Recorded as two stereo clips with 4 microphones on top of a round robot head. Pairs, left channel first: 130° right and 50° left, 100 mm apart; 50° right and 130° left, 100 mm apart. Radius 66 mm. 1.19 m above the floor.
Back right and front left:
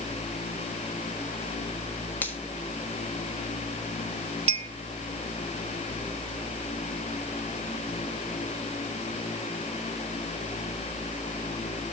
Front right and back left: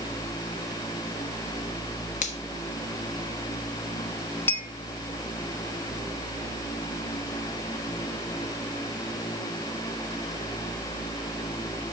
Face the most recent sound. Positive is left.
turn(degrees=20)